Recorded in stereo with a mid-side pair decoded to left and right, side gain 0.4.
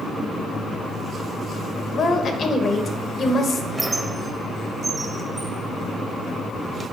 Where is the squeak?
25° right, 0.7 m.